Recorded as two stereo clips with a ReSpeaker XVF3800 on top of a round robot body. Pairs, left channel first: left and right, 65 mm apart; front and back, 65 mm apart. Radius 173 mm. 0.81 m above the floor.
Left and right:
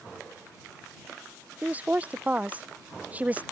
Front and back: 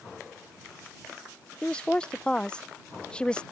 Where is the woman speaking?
55° right.